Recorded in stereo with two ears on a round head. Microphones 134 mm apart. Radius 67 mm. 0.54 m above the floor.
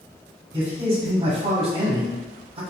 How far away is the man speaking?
About 0.9 m.